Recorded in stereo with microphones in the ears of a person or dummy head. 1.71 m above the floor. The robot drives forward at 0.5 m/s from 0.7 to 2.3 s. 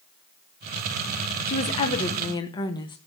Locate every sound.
1.5 s a woman speaking: 35° left (ahead or behind), 0.9 m; by 3.0 s 25° left (ahead or behind), 1.2 m